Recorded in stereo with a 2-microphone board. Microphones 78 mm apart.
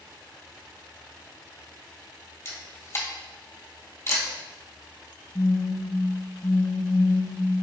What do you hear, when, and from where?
2.5 s a camera shutter: 35° left (ahead or behind), 0.8 m
5.3 s a phone buzzing: 35° left (ahead or behind), 0.6 m